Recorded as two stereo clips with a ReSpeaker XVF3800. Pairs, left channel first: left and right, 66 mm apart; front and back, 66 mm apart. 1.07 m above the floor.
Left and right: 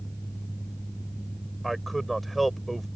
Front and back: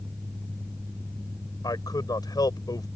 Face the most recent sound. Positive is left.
turn(degrees=0)